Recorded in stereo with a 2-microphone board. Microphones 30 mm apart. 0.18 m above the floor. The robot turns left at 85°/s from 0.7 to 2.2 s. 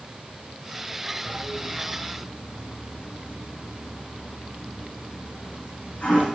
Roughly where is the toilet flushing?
Right.